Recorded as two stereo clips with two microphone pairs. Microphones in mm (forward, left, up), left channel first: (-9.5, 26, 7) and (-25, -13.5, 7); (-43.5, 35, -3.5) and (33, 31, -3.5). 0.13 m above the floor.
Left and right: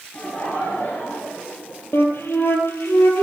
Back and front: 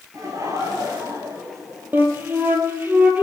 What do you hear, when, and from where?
0.1 s laughter: 30° left, 2.5 m; by 2.3 s 50° left, 3.5 m
1.9 s a flute: 60° left, 2.5 m